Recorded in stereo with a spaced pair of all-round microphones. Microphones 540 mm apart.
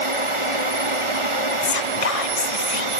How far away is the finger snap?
I don't hear a finger snap.